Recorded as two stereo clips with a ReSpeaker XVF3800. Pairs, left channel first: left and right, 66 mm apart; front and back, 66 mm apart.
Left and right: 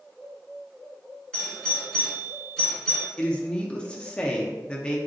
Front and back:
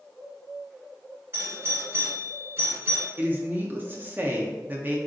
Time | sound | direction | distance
1.3 | a doorbell | 165° left | 1.9 m
3.2 | a woman speaking | 155° left | 0.6 m